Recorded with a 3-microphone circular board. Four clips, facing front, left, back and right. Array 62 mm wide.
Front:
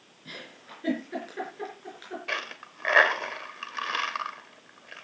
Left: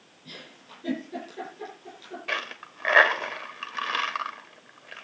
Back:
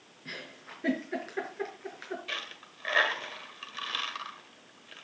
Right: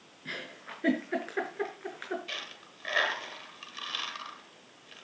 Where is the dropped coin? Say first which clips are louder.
Left 10 dB, front 6 dB; 55° left, 1.4 m.